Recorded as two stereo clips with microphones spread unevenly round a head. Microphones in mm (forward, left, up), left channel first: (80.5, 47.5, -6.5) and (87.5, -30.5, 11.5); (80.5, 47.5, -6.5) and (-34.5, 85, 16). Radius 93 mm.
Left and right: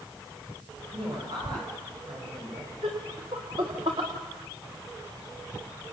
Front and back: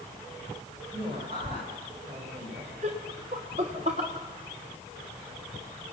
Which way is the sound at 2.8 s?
140° right.